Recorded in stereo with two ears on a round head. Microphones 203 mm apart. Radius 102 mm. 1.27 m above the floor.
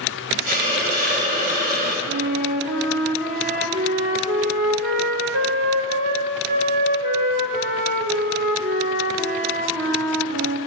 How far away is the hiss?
About 1.3 m.